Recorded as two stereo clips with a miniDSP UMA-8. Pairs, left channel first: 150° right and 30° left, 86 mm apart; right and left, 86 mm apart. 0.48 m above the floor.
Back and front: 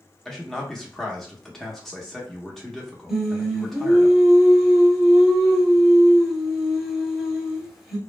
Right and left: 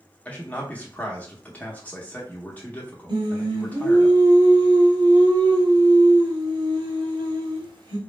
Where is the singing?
115° left, 0.8 m.